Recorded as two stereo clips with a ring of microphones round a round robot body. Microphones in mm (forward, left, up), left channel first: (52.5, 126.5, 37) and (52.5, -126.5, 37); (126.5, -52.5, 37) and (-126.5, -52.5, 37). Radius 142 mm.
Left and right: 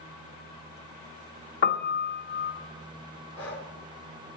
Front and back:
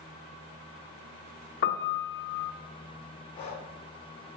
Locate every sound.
1.6 s a piano: 50° left, 0.6 m
3.4 s breathing: 70° left, 2.5 m